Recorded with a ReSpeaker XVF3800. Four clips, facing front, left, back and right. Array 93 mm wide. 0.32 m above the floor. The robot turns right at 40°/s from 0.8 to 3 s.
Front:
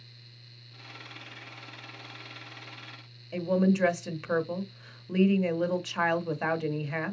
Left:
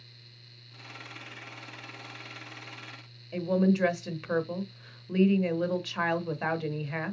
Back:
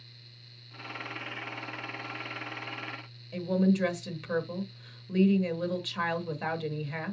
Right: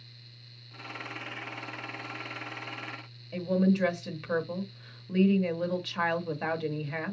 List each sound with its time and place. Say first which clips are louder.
3.3 s a woman speaking: left 1 dB, front 1 dB; 20° left, 0.8 m